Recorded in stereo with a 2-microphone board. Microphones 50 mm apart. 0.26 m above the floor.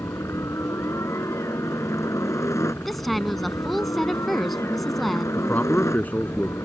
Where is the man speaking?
30° left (ahead or behind).